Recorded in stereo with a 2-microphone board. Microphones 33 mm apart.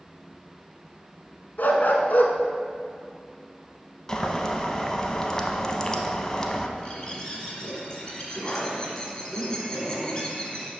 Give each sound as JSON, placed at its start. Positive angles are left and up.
{"t": 1.6, "sound": "a dog barking", "side_deg": 60, "distance_m": 0.8}
{"t": 4.1, "sound": "boiling", "side_deg": 20, "distance_m": 0.6}
{"t": 6.8, "sound": "a bird", "side_deg": 20, "distance_m": 1.3}